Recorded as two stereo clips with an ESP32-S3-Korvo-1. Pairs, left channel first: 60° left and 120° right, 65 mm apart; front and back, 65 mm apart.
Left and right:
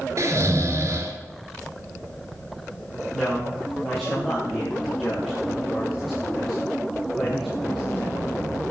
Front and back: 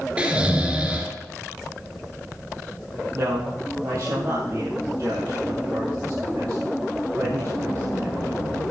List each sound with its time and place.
0.2 s snoring: 115° right, 1.9 m
3.1 s a man speaking: 150° left, 3.5 m